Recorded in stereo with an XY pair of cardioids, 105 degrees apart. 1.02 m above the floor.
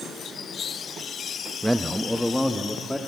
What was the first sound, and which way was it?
A man speaking, 10° right.